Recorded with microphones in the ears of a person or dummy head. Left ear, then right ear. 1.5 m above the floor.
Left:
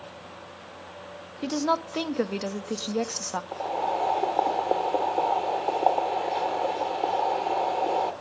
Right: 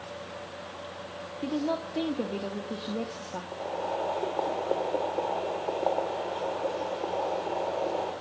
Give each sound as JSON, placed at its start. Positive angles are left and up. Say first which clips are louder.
{"t": 1.4, "sound": "a woman speaking", "louder": "left 5 dB", "side_deg": 60, "distance_m": 0.7}
{"t": 3.5, "sound": "boiling", "louder": "left 4 dB", "side_deg": 45, "distance_m": 0.8}